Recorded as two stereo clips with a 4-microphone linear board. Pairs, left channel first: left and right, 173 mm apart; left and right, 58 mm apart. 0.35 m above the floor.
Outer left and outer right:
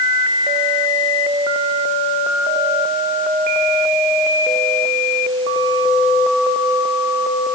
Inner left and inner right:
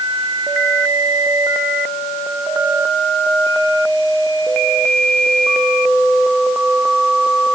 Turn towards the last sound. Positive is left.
No sound to turn to.